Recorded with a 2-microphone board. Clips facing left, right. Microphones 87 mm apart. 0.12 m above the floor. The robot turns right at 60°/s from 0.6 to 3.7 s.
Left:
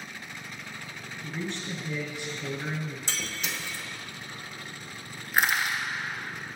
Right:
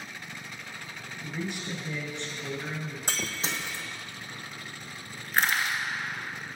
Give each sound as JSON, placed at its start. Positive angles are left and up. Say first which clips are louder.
{"t": 1.2, "sound": "a man speaking", "louder": "even", "azimuth_deg": -40, "distance_m": 1.2}
{"t": 3.1, "sound": "breaking glass", "louder": "right 2 dB", "azimuth_deg": -60, "distance_m": 0.7}
{"t": 5.3, "sound": "crushing", "louder": "left 1 dB", "side_deg": 10, "distance_m": 1.3}